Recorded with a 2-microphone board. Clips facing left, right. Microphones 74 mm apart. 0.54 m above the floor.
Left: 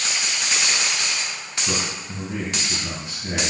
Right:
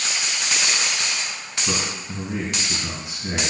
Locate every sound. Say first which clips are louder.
1.7 s a man speaking: right 1 dB; 10° right (ahead or behind), 3.5 m